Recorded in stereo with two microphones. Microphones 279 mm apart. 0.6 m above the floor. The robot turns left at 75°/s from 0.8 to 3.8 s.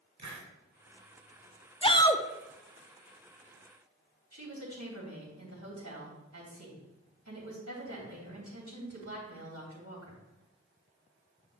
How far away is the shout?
About 0.6 m.